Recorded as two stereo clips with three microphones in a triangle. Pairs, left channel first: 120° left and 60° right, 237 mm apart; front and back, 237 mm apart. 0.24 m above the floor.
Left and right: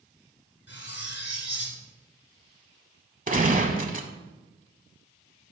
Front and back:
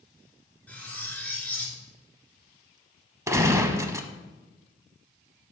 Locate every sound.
0.7 s cutlery clinking: 85° left, 1.8 m
3.3 s a gunshot: 105° right, 0.8 m